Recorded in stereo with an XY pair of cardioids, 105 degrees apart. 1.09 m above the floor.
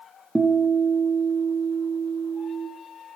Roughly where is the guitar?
Ahead.